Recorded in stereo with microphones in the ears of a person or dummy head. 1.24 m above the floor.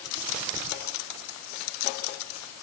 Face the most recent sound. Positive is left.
No sound to turn to.